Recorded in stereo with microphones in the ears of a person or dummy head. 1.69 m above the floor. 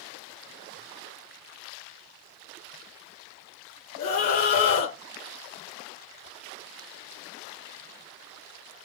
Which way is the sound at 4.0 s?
40° left (ahead or behind).